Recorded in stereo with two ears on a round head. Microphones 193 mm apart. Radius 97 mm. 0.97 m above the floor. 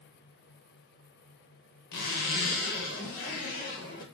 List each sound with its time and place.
1.9 s a zipper: 45° left (ahead or behind), 0.8 m